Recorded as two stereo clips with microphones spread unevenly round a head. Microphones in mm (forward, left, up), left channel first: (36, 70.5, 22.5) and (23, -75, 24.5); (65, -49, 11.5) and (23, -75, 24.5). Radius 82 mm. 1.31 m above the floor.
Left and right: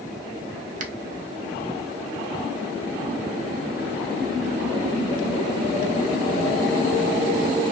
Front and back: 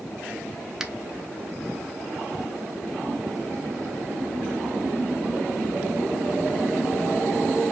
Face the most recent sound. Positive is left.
turn(degrees=-65)